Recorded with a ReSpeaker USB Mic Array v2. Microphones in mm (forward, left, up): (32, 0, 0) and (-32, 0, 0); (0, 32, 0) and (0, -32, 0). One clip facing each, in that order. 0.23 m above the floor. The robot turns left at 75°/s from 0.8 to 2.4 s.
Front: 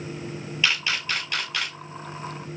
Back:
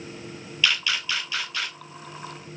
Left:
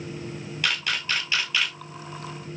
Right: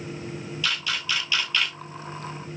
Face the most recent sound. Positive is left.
turn(degrees=-55)